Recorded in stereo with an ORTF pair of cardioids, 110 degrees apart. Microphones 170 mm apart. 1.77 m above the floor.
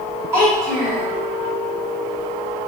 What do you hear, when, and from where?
0.3 s a child speaking: 15° right, 1.6 m